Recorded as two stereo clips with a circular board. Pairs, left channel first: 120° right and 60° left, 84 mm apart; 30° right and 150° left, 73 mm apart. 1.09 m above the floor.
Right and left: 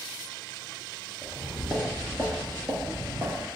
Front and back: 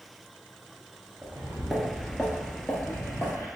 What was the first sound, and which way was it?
Footsteps, 120° left.